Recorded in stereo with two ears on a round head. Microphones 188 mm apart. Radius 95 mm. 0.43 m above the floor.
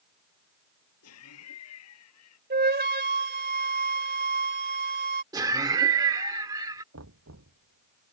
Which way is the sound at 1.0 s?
80° left.